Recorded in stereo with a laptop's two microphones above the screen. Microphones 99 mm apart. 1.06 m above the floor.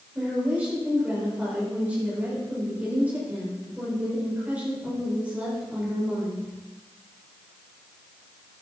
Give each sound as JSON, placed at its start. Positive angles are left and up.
{"t": 0.1, "sound": "a woman speaking", "side_deg": -15, "distance_m": 5.0}